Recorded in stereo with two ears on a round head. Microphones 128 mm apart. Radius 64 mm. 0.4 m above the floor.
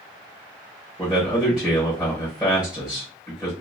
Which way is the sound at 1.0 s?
5° right (ahead or behind).